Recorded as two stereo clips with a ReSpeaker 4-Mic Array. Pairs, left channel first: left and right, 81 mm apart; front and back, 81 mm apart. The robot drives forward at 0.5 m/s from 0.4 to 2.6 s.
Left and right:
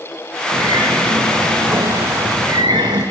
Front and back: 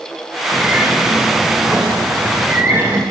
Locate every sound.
0.5 s a bird: 105° right, 6.5 m; by 3.0 s 115° right, 6.5 m